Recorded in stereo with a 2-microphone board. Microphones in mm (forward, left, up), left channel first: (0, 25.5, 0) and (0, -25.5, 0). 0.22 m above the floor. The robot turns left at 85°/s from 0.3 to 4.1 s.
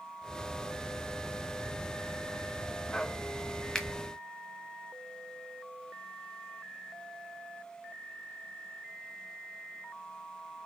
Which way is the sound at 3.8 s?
10° left (ahead or behind).